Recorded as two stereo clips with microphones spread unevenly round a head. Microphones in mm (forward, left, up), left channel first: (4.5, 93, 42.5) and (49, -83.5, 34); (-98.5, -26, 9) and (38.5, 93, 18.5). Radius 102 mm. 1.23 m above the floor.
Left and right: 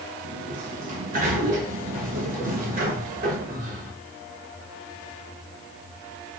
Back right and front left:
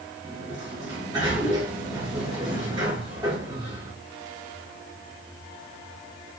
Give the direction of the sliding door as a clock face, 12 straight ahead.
1 o'clock.